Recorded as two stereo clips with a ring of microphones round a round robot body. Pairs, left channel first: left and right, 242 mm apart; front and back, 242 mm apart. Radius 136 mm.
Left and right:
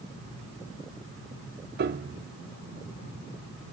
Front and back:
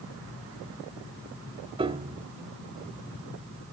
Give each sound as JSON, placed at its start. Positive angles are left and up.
{"t": 1.8, "sound": "a piano", "azimuth_deg": -120, "distance_m": 0.6}